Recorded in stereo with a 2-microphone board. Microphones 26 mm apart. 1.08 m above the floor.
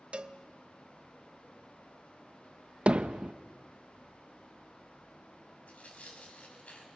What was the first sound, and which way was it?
A cowbell, 50° right (ahead or behind).